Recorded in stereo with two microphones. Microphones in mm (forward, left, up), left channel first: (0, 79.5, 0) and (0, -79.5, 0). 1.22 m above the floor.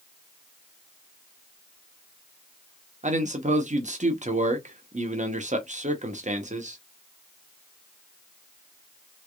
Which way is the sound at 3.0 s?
50° right (ahead or behind).